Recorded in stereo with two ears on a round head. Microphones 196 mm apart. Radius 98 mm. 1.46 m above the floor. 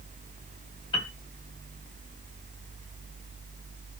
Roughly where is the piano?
Left.